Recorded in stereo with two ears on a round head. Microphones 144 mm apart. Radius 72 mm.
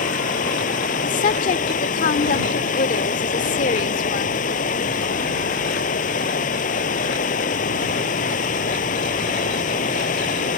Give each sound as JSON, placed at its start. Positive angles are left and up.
{"t": 0.0, "sound": "running water", "side_deg": 55}
{"t": 1.0, "sound": "a woman speaking", "side_deg": 50}